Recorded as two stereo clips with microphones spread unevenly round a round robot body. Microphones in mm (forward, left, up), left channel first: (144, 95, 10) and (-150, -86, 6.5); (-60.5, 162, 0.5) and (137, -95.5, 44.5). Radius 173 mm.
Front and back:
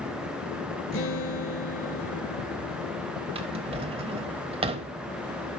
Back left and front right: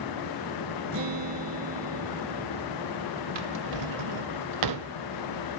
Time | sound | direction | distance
0.9 | a guitar | 20° right | 1.4 m
3.4 | a drawer | 75° right | 0.8 m